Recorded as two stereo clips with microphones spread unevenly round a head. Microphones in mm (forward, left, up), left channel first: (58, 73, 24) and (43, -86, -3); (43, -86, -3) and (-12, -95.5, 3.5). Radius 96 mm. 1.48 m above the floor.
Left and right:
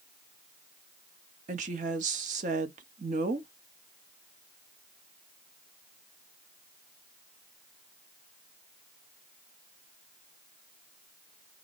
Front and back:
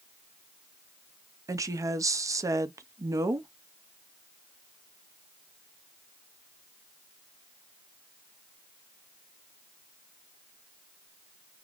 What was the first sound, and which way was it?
A woman speaking, 140° right.